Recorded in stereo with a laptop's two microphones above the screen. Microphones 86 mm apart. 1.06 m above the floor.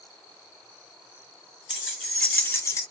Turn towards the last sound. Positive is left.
turn(degrees=45)  # may be behind; listen again after turning